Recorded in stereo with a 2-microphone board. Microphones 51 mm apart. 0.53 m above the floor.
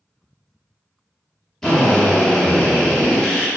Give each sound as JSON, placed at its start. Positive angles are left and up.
{"t": 1.6, "sound": "a drill", "side_deg": 10, "distance_m": 1.0}